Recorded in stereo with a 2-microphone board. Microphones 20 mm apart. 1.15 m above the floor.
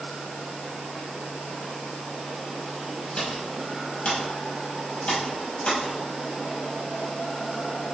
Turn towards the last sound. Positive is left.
turn(degrees=80)